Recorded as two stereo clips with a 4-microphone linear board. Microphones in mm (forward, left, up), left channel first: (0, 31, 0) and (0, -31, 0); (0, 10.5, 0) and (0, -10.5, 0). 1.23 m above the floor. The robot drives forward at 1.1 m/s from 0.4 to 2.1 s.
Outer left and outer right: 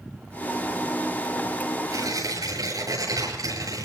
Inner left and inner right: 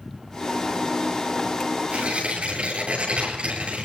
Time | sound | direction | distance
1.9 | tearing paper | 80° right | 9.5 m